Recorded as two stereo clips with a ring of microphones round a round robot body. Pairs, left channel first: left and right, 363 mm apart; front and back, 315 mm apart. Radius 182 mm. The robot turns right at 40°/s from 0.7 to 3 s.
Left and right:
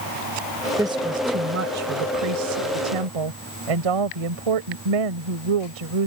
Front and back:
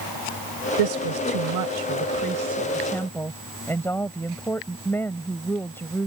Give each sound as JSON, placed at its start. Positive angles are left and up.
{"t": 0.8, "sound": "a woman speaking", "azimuth_deg": -175}